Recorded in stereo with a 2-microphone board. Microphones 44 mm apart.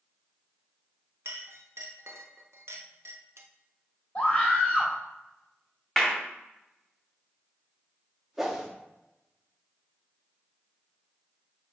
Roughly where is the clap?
Centre.